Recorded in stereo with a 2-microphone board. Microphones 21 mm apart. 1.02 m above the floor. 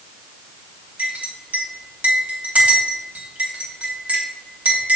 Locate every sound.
1.0 s a clink: 85° right, 3 m